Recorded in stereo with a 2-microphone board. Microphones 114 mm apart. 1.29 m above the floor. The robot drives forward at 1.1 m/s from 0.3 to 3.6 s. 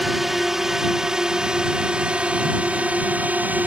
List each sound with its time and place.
0.0 s a drone: 5° right (ahead or behind); by 3.7 s 15° right (ahead or behind)